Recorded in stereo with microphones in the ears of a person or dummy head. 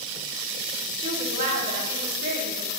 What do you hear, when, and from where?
1.0 s a woman speaking: 30° right (ahead or behind), 2 m; by 2.7 s 85° right, 3 m